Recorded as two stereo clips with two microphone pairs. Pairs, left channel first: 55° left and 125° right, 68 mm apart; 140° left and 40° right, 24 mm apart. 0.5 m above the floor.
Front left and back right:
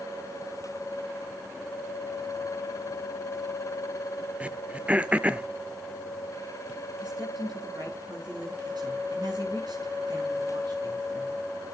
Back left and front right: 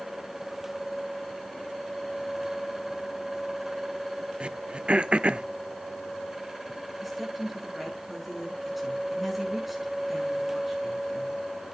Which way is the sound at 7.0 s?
125° right.